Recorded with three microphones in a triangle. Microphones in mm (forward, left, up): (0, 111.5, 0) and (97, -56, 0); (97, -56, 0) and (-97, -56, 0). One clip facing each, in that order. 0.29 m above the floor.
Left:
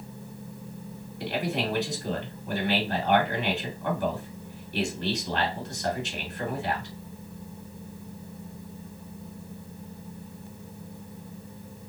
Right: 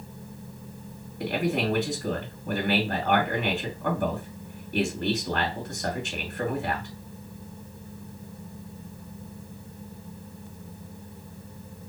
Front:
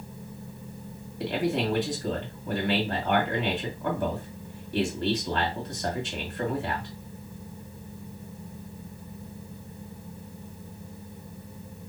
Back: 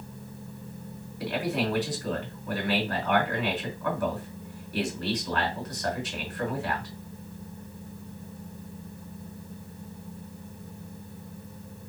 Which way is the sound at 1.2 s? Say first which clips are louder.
Right 3 dB, front 2 dB; 55° right.